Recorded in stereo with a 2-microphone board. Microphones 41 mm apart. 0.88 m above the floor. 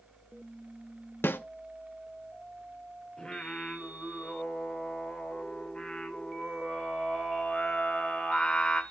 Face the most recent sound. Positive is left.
turn(degrees=20)  # may be behind; listen again after turning